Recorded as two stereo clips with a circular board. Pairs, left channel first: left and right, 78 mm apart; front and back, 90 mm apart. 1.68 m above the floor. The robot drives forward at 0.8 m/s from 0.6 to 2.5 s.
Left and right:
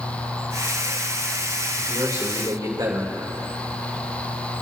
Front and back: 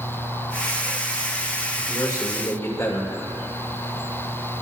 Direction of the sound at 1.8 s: 45° right.